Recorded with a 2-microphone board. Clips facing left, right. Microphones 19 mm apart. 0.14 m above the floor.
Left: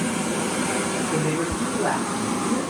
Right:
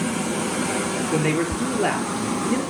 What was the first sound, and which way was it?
A man speaking, 55° right (ahead or behind).